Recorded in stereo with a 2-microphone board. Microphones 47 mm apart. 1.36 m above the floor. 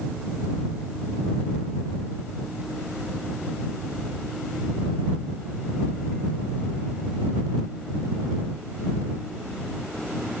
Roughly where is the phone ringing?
I don't hear a phone ringing.